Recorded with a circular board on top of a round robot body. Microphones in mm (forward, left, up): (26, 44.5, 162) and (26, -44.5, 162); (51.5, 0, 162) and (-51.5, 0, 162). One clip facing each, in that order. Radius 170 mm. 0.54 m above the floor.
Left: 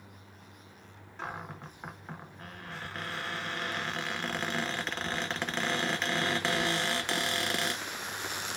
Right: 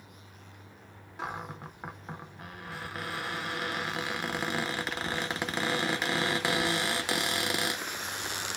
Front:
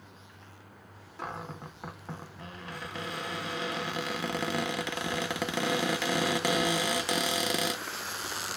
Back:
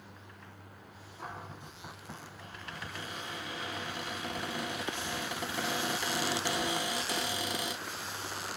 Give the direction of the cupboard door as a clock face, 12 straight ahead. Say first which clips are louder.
Right 2 dB, front 5 dB; 12 o'clock.